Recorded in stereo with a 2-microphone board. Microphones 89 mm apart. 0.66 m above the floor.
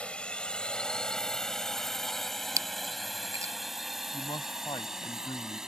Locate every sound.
0.0 s a drone: 15° left (ahead or behind); by 5.7 s 5° right (ahead or behind)
2.6 s chewing: 40° right (ahead or behind)
4.1 s a man speaking: 60° left (ahead or behind)